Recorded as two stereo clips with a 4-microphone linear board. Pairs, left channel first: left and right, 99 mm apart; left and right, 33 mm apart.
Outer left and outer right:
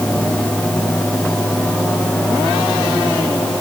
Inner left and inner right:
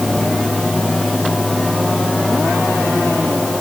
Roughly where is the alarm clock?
I don't hear an alarm clock.